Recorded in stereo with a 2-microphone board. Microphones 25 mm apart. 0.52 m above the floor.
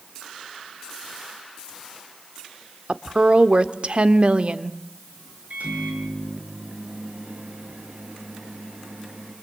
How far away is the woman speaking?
About 1.2 m.